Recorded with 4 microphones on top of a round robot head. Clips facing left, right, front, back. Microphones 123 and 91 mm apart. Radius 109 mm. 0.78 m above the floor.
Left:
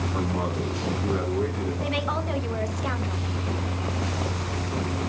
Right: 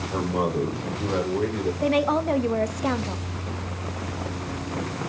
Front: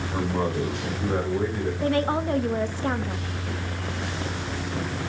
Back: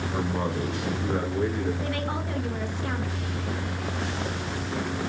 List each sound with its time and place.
0.1 s a man speaking: 90° right, 3.5 m; by 1.7 s 70° right, 4 m
1.8 s a woman speaking: 50° right, 1.2 m